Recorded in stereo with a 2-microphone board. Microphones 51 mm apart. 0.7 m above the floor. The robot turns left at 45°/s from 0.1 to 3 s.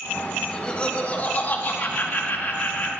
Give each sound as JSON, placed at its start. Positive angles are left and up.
{"t": 0.4, "sound": "laughter", "azimuth_deg": 160, "distance_m": 1.4}